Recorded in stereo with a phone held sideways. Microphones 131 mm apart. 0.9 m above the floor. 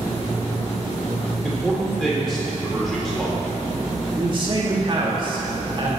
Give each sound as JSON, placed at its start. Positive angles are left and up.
{"t": 1.4, "sound": "a man speaking", "side_deg": 0, "distance_m": 3.0}
{"t": 4.2, "sound": "a man speaking", "side_deg": -40, "distance_m": 1.7}